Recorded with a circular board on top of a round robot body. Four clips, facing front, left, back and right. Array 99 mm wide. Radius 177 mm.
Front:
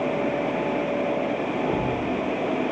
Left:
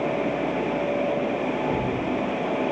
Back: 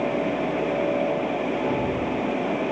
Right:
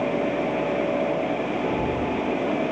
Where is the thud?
25° left, 8 m.